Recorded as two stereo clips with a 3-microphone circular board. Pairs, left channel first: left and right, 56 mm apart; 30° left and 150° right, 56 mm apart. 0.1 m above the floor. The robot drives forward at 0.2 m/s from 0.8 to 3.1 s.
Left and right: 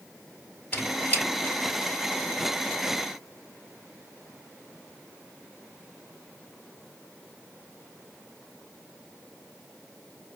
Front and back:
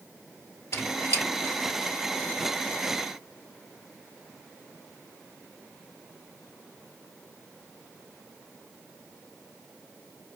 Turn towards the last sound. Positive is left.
turn(degrees=60)